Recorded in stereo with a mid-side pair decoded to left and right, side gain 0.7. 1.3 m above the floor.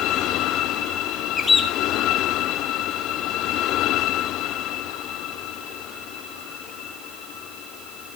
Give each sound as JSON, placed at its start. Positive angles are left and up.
{"t": 1.4, "sound": "a bird", "azimuth_deg": 20, "distance_m": 2.5}